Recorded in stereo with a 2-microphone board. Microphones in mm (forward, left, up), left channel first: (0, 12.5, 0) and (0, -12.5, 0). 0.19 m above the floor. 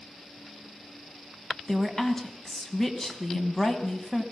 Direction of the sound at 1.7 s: 20° left (ahead or behind).